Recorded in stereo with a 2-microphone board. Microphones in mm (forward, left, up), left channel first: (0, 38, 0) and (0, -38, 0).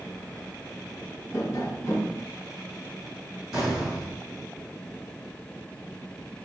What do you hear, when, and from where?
1.3 s tapping: 45° left (ahead or behind), 1.2 m
3.5 s an explosion: 5° right (ahead or behind), 1.6 m